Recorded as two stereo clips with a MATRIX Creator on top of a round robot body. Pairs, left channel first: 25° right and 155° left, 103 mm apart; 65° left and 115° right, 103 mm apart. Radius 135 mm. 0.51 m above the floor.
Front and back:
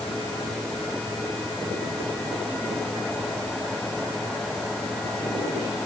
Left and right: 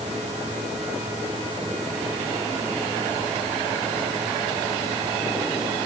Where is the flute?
I don't hear a flute.